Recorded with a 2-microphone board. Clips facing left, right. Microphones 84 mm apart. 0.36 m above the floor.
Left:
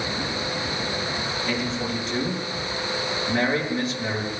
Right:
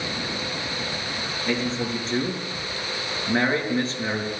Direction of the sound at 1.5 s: 35° right (ahead or behind).